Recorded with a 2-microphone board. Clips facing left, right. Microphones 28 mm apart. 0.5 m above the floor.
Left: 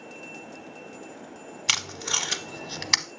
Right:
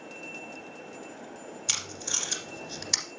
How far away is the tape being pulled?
About 0.7 m.